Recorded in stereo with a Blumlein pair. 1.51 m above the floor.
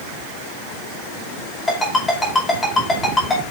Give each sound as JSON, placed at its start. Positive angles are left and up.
{"t": 1.7, "sound": "a ringtone", "azimuth_deg": 10, "distance_m": 5.0}